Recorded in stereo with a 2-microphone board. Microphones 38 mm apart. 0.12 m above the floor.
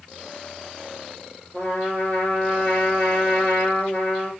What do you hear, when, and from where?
1.5 s a trumpet: 50° left (ahead or behind), 5 m